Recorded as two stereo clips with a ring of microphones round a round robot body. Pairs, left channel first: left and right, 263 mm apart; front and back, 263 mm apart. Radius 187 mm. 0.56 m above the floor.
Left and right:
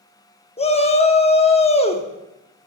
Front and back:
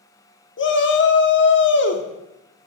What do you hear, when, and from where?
0.6 s a shout: 30° left, 1.0 m